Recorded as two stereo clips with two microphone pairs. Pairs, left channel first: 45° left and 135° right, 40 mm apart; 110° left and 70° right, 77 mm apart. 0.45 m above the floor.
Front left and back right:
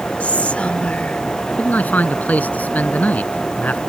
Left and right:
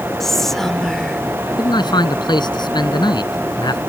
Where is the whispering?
25° left.